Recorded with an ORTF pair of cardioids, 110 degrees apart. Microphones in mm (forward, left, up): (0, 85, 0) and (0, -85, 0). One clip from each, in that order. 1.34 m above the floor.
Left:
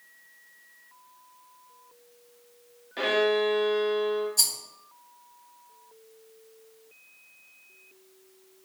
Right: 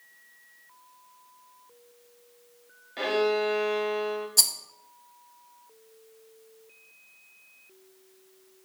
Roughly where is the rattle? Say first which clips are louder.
Right 4 dB; ahead right.